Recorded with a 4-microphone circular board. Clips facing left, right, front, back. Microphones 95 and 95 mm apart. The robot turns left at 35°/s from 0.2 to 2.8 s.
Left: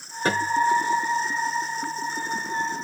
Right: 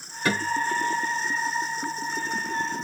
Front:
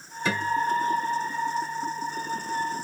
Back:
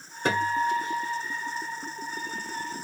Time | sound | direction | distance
0.2 | a guitar | 145° left | 1.5 m